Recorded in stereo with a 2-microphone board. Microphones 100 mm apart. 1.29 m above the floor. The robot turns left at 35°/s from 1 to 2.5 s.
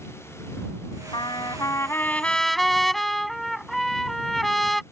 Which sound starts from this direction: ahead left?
A trumpet, at 1.1 s.